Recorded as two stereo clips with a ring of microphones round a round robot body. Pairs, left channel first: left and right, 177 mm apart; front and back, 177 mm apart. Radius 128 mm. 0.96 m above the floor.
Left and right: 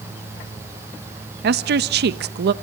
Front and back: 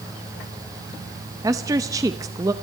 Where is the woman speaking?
105° right, 0.8 m.